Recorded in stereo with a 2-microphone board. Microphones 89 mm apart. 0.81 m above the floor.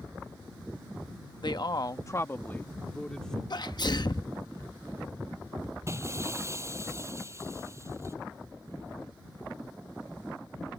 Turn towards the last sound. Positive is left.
turn(degrees=-35)  # may be behind; listen again after turning